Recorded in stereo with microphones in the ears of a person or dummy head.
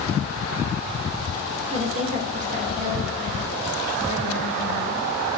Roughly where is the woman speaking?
Right.